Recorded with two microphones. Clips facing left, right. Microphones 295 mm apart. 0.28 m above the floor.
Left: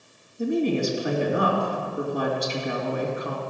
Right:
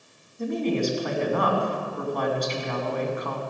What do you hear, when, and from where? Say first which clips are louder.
0.4 s a woman speaking: left 2 dB; 10° left (ahead or behind), 2 m